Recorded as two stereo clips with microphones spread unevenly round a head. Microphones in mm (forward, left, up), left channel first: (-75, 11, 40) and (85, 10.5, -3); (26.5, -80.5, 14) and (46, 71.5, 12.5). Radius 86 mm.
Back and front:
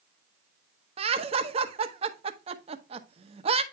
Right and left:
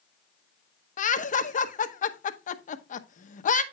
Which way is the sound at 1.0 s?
60° right.